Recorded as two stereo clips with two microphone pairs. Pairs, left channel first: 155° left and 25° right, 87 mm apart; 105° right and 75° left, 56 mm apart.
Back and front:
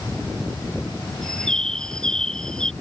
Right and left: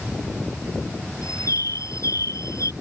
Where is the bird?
125° right.